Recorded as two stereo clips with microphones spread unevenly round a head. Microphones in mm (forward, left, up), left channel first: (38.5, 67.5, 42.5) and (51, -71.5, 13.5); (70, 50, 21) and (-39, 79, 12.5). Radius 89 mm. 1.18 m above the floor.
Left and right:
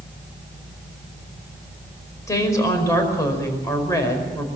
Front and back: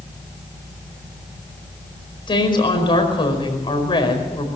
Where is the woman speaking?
30° left, 5 m.